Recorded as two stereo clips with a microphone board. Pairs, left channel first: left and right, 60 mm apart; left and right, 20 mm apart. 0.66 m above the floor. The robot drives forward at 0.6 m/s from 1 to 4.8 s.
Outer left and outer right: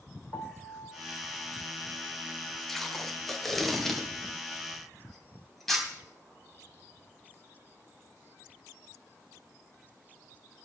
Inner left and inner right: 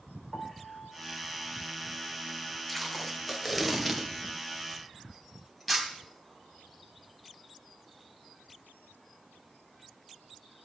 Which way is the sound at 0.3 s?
40° left (ahead or behind).